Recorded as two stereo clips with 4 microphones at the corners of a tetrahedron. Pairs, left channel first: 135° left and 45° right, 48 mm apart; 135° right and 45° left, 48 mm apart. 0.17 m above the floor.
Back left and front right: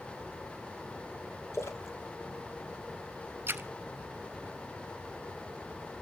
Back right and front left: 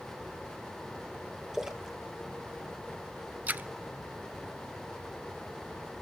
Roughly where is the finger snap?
I don't hear a finger snap.